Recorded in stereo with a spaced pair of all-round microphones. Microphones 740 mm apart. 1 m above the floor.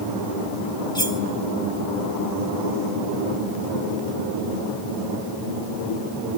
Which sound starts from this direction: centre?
Cutlery clinking, at 0.9 s.